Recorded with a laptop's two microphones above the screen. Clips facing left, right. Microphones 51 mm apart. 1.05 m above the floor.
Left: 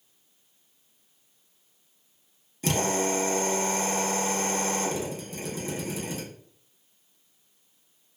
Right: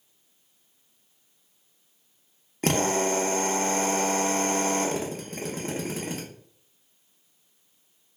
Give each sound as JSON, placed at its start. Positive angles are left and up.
{"t": 2.6, "sound": "a drill", "side_deg": -50, "distance_m": 0.6}